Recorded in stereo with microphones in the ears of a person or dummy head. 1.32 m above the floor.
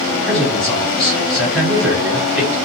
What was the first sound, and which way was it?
A man speaking, centre (ahead or behind).